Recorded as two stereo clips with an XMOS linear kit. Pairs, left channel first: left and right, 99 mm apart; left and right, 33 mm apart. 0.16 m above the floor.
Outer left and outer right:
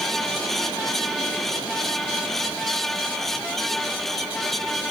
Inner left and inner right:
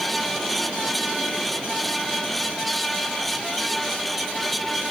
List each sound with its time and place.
Only background noise.